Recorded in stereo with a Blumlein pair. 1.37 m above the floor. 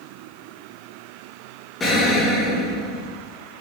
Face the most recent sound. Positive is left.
turn(degrees=15)